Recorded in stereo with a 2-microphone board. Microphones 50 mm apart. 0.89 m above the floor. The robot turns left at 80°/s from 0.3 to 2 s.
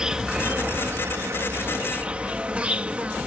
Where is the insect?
15° right; by 3.3 s 150° right.